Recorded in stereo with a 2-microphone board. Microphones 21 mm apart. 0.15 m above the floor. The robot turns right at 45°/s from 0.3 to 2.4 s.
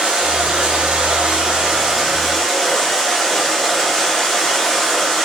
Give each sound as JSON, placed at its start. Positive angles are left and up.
{"t": 0.0, "sound": "running water", "azimuth_deg": -95, "distance_m": 6.5}